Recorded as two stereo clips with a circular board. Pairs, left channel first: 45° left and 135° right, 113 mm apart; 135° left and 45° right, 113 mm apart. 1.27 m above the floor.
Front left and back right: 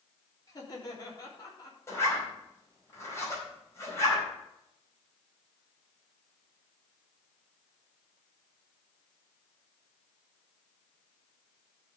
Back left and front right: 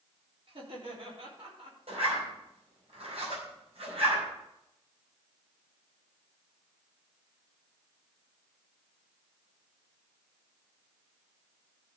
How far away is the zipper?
About 4.5 m.